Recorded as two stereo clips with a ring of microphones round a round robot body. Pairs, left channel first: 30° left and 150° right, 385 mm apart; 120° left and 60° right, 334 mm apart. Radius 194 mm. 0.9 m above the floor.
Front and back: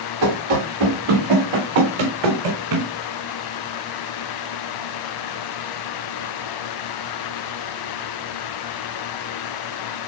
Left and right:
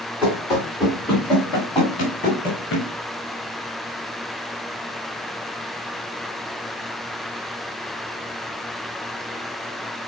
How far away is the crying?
I don't hear crying.